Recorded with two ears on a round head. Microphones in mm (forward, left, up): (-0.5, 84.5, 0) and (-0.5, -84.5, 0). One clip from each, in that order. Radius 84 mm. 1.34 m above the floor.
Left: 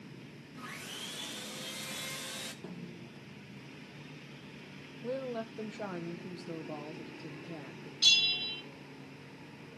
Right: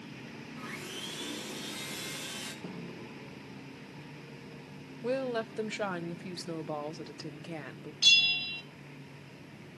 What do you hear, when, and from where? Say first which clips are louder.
0.6 s sawing: right 1 dB; 15° left (ahead or behind), 1.3 m
2.6 s a snare drum: right 4 dB; 15° left (ahead or behind), 7 m
5.0 s a woman speaking: right 5 dB; 60° right (ahead or behind), 1.0 m
8.0 s a bell: right 2 dB; 5° left (ahead or behind), 0.6 m